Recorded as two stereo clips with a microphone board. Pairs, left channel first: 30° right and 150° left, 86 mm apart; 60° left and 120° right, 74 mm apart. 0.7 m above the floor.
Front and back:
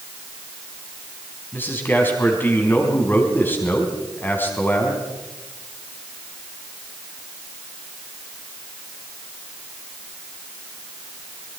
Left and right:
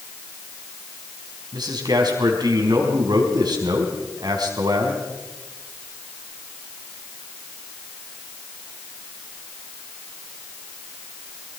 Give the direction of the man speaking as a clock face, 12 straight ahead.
3 o'clock.